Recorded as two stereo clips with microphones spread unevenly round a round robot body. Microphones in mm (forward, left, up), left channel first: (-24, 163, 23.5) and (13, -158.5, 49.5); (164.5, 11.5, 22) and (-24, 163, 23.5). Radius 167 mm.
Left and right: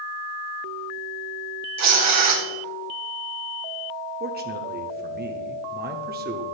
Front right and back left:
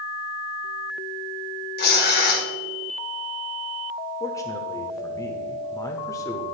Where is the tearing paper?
70° right, 1.7 m.